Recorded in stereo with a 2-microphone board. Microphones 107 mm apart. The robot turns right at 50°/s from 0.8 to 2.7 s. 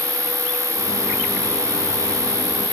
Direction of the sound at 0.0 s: 35° left.